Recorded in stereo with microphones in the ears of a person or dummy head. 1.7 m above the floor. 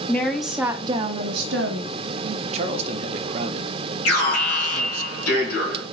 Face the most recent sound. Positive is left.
turn(degrees=85)